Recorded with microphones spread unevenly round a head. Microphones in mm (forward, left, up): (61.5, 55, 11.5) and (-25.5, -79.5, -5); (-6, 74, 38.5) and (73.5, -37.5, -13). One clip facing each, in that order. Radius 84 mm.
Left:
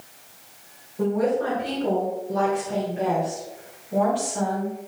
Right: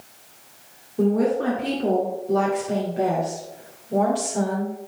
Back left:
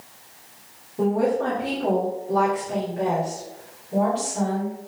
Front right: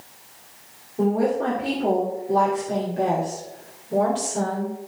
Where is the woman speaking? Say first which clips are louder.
Right 2 dB, even; 135° right, 2.5 m; by 4.8 s 80° right, 3.5 m.